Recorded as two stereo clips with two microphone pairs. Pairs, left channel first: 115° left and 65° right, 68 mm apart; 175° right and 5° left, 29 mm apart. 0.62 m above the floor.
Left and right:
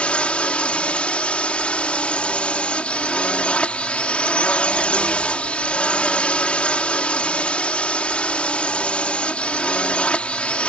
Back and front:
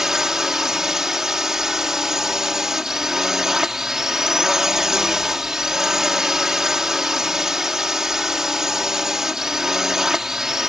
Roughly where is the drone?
Ahead left.